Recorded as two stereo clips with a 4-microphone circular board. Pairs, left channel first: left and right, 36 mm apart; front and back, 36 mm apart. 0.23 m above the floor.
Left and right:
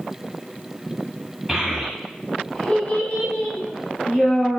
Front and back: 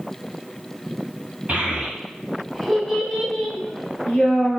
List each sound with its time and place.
1.5 s a child speaking: 170° right, 0.7 m; by 4.6 s 50° left, 1.4 m